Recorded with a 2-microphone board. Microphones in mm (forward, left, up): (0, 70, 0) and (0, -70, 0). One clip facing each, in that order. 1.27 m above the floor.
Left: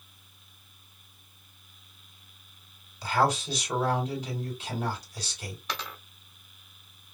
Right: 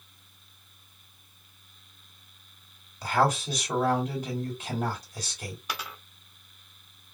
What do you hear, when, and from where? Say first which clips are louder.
3.0 s a man speaking: right 1 dB; 50° right (ahead or behind), 3 m
5.7 s a dropped coin: left 2 dB; 10° right (ahead or behind), 1.4 m